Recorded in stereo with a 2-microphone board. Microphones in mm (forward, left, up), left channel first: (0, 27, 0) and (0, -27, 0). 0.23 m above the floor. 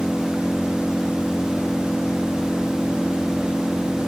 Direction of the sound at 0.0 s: 10° left (ahead or behind).